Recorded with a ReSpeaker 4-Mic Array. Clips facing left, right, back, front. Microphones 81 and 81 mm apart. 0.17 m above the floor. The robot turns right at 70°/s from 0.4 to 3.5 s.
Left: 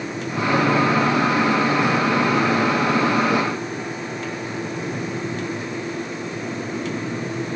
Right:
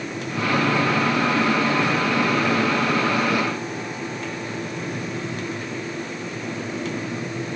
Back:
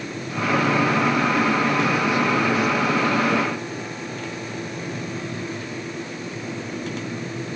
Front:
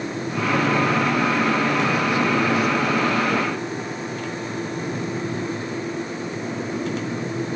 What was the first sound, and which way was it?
Only background noise.